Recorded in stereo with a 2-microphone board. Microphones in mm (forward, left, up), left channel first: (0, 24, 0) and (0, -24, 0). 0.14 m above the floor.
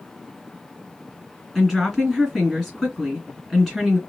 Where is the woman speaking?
5° left (ahead or behind), 2.0 m.